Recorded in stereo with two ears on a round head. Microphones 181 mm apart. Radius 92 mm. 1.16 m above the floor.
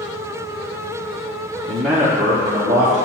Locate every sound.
1.7 s a man speaking: 10° left (ahead or behind), 0.6 m; by 3.0 s 30° right (ahead or behind), 1.8 m